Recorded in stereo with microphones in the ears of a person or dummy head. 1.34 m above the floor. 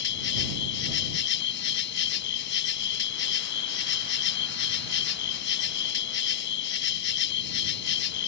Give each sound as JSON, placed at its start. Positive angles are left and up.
{"t": 0.0, "sound": "an insect", "side_deg": 55}